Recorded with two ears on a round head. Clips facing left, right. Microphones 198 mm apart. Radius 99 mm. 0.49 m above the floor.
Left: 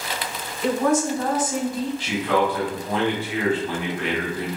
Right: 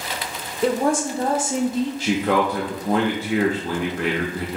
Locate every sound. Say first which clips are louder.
0.6 s a woman speaking: even; 30° right (ahead or behind), 1.0 m; by 1.9 s 20° right (ahead or behind), 0.7 m
2.0 s a man speaking: right 1 dB; 40° right (ahead or behind), 0.9 m